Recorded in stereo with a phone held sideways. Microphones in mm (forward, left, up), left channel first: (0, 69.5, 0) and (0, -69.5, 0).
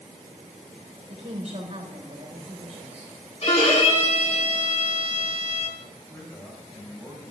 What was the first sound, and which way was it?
A woman speaking, 55° right (ahead or behind).